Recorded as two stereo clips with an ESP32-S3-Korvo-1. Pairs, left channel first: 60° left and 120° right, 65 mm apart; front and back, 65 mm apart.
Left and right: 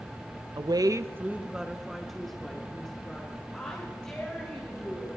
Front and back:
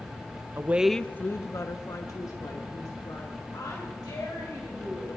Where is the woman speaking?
130° right, 0.7 m; by 5.1 s 15° right, 5.5 m.